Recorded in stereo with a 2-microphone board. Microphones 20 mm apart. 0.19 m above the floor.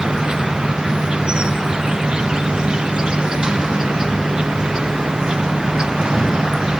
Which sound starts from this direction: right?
An insect, at 0.0 s.